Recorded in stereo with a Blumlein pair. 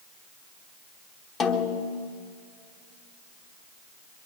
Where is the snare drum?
20° left, 0.9 m.